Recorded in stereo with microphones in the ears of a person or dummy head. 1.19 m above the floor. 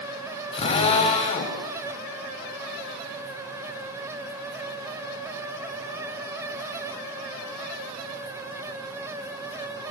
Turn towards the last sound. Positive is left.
turn(degrees=35)  # may be behind; listen again after turning